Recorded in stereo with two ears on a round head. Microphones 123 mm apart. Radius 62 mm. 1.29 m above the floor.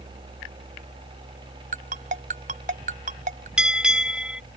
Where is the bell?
5° right (ahead or behind).